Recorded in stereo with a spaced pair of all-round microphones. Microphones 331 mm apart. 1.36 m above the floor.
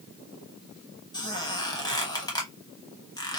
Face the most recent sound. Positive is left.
turn(degrees=10)  # may be behind; listen again after turning